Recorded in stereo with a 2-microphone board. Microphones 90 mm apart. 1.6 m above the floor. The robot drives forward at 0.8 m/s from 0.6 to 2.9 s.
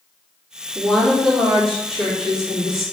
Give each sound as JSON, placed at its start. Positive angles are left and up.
{"t": 0.8, "sound": "a woman speaking", "side_deg": 0, "distance_m": 3.5}